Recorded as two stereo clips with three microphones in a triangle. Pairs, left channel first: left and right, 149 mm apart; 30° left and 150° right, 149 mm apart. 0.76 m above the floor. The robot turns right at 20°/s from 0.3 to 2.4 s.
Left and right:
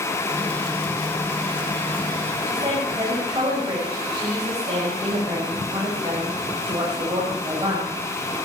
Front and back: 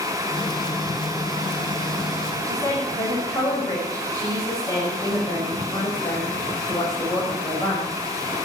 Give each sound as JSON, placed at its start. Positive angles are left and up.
{"t": 2.5, "sound": "a woman speaking", "azimuth_deg": -40, "distance_m": 4.5}